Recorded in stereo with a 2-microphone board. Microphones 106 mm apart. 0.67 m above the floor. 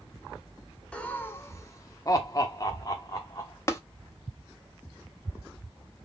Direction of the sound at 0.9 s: 10° left (ahead or behind).